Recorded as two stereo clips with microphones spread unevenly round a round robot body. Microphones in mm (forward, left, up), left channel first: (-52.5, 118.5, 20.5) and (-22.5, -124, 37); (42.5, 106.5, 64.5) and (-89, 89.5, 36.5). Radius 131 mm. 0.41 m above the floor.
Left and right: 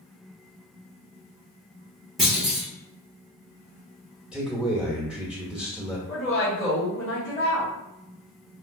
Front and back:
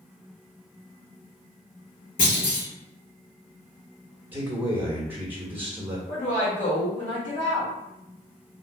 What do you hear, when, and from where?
2.2 s a clunk: 5° left, 1.9 m
4.3 s a man speaking: 175° right, 1.0 m
6.1 s a woman speaking: 15° left, 1.6 m